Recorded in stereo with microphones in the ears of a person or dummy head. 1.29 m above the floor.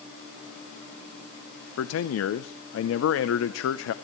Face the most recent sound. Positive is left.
turn(degrees=75)  # may be behind; listen again after turning